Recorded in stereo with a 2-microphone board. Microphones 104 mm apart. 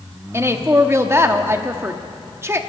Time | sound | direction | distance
0.3 | a woman speaking | 25° right (ahead or behind) | 1.0 m